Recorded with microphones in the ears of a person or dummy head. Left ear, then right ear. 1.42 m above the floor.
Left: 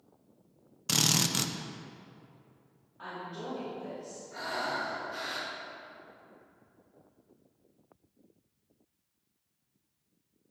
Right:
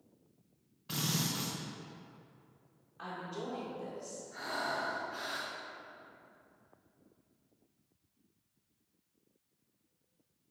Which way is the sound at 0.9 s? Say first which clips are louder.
Left 9 dB; 80° left.